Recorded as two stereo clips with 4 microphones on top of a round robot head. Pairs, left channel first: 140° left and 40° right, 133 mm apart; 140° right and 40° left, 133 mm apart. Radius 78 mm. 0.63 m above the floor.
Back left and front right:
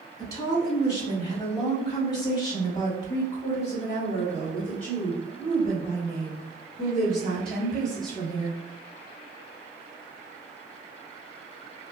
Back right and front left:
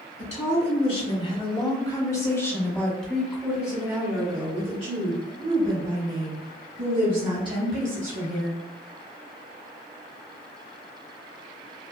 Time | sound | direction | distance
0.2 | a woman speaking | 160° right | 2.0 m